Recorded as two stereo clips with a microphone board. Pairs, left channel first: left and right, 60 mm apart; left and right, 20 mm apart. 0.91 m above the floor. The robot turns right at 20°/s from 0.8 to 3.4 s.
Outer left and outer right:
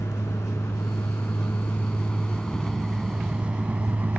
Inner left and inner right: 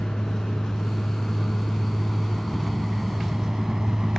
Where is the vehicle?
65° left (ahead or behind); by 4.2 s 30° right (ahead or behind).